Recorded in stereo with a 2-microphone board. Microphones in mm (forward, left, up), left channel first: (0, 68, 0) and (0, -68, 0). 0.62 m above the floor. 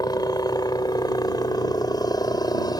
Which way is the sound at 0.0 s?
30° left (ahead or behind).